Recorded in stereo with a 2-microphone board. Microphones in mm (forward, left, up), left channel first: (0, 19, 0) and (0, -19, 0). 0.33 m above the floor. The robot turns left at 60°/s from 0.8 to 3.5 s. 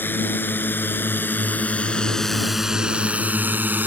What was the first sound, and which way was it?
A drone, 70° left (ahead or behind).